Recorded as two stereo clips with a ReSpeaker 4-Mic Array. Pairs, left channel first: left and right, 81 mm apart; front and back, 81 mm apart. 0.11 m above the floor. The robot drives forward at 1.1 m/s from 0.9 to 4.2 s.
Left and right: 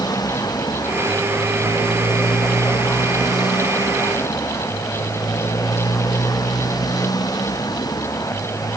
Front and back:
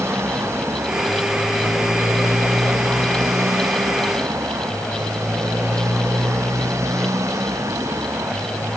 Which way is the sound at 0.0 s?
125° left.